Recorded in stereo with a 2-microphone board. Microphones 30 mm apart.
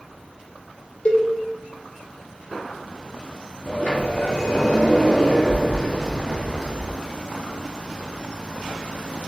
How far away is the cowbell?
About 1.1 m.